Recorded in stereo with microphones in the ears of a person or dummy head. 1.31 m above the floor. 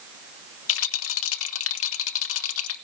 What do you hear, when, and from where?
0.7 s a rattle: 80° left, 1.2 m